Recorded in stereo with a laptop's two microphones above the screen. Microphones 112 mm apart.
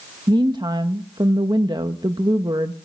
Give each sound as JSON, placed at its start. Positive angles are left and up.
{"t": 0.3, "sound": "a woman speaking", "side_deg": -40, "distance_m": 0.9}